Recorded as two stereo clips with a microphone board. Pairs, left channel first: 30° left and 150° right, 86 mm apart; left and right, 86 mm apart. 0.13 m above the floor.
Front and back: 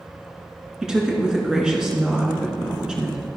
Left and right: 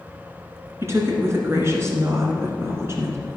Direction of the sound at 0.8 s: 80° right.